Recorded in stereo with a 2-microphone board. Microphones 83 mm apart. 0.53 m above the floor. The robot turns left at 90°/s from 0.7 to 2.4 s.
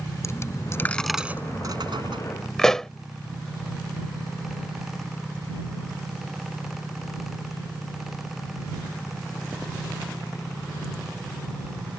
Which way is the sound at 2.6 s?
5° left (ahead or behind).